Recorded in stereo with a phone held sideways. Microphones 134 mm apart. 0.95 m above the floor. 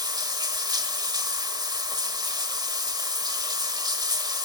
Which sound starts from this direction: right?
Running water, at 0.0 s.